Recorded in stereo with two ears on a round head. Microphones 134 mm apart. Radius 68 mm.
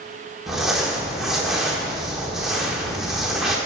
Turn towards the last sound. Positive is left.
turn(degrees=-5)  # may be behind; listen again after turning